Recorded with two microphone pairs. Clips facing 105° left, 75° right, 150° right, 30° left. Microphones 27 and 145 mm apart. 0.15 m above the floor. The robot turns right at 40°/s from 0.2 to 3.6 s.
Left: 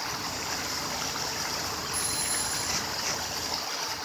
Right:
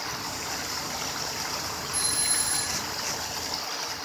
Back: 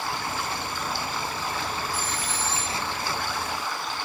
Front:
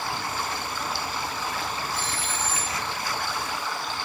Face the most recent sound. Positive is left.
turn(degrees=-45)